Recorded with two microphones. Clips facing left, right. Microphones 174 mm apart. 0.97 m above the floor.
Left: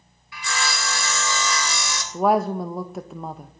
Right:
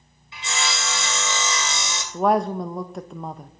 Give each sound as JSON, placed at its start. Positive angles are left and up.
{"t": 0.3, "sound": "sawing", "side_deg": -25, "distance_m": 2.0}
{"t": 2.1, "sound": "a woman speaking", "side_deg": 5, "distance_m": 0.6}